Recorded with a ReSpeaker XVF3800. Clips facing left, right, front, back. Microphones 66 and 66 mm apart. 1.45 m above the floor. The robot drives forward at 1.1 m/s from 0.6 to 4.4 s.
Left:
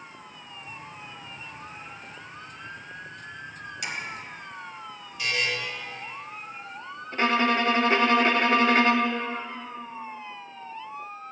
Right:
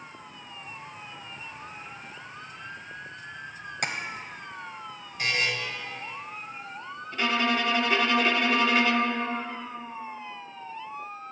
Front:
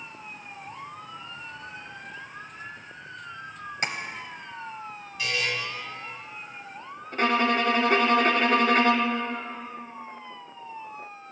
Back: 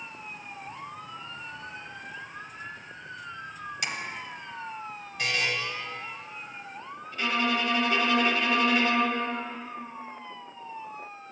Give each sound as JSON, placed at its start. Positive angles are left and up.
{"t": 3.8, "sound": "tapping", "azimuth_deg": -50, "distance_m": 0.8}
{"t": 5.2, "sound": "a buzzer", "azimuth_deg": -140, "distance_m": 1.3}
{"t": 7.1, "sound": "a violin", "azimuth_deg": 40, "distance_m": 0.6}